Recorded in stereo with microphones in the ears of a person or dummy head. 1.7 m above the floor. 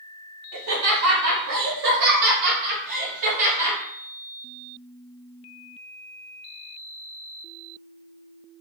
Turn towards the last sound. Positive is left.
turn(degrees=-45)  # may be behind; listen again after turning